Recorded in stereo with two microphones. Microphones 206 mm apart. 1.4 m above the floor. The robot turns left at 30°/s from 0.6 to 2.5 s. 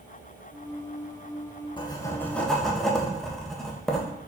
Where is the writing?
25° left (ahead or behind), 1.1 m; by 4.1 s centre (ahead or behind), 1.1 m.